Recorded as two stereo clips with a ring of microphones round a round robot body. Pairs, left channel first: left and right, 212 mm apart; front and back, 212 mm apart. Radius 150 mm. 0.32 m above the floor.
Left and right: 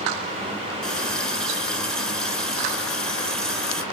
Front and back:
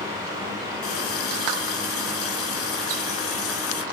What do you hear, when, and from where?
0.8 s a running tap: straight ahead, 3 m